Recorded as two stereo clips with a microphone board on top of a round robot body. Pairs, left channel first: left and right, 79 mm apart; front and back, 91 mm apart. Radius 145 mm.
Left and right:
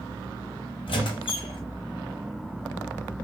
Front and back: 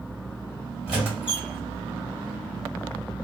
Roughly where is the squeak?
Left.